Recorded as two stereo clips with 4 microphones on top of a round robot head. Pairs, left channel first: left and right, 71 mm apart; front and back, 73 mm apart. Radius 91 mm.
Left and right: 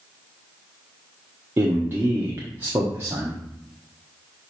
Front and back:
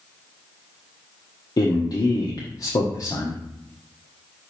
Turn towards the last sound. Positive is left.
turn(degrees=-30)